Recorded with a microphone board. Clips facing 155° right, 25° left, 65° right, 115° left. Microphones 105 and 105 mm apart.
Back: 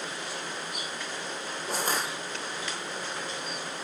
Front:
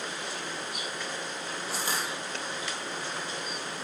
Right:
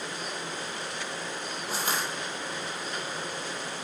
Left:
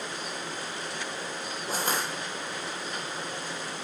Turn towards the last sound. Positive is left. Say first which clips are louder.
# back 4 dB, left 2 dB
turn(degrees=160)